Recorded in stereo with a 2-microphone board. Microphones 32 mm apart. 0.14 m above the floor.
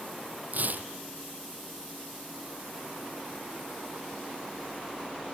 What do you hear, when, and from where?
0.5 s tearing paper: 55° right (ahead or behind), 1.4 m